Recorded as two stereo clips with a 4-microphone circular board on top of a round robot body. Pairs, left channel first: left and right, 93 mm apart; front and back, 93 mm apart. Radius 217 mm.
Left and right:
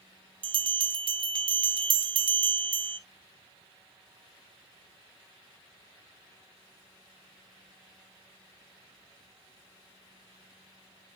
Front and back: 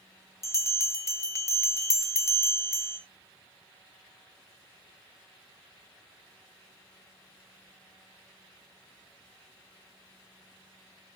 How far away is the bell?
About 1.1 m.